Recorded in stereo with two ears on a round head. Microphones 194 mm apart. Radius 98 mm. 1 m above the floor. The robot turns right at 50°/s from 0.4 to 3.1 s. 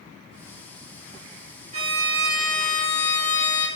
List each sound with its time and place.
1.7 s a violin: 35° right, 1.5 m; by 3.7 s 35° left, 1.5 m